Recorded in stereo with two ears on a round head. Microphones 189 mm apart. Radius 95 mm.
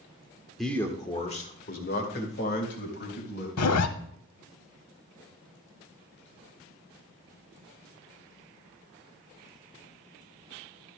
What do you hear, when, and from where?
0.6 s a man speaking: centre (ahead or behind), 1.3 m; by 3.5 s 55° left (ahead or behind), 3.5 m
3.6 s a zipper: 85° left, 0.8 m